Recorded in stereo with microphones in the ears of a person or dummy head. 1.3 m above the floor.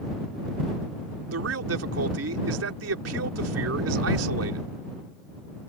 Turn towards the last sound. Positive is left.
turn(degrees=-85)